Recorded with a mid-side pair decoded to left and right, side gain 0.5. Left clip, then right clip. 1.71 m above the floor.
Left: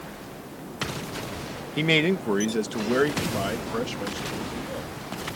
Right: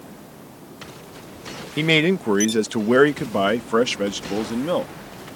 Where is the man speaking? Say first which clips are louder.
Right 4 dB; 20° right; by 4.9 s 80° right.